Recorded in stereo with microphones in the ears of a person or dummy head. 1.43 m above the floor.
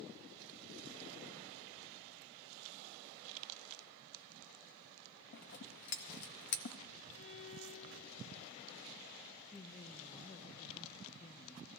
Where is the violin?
70° left (ahead or behind), 1.6 m.